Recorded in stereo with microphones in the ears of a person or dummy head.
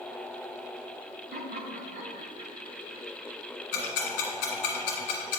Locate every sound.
1.3 s laughter: 35° right (ahead or behind), 1.3 m; by 3.3 s 20° right (ahead or behind), 2.5 m
3.7 s ticking: 60° left (ahead or behind), 1.8 m